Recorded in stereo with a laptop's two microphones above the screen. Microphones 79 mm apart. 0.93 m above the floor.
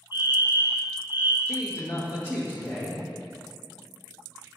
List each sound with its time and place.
0.1 s a fire alarm: 35° right (ahead or behind), 2 m
1.4 s a man speaking: 40° left (ahead or behind), 1.5 m